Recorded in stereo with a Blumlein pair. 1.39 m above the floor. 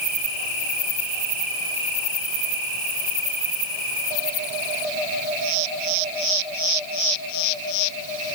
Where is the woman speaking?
No woman speaking in this recording.